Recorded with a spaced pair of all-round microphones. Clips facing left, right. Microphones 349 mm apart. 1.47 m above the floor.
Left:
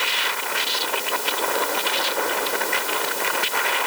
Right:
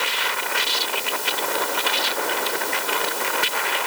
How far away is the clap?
I don't hear a clap.